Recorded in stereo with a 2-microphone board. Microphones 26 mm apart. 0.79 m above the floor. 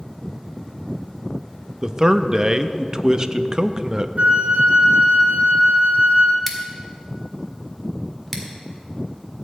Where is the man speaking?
30° right (ahead or behind), 0.5 m.